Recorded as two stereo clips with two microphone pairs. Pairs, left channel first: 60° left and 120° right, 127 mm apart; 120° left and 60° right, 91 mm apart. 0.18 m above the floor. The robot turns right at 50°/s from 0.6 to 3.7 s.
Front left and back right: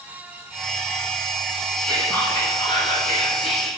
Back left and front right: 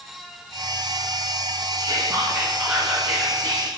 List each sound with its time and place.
1.8 s whispering: 30° right, 2.5 m; by 3.7 s 65° left, 2.5 m